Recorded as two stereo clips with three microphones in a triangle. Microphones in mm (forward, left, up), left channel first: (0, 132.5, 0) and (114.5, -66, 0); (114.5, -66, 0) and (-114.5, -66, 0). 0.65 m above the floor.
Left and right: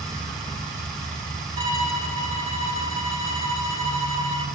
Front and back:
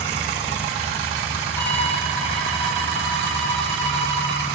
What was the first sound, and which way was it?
A violin, 80° right.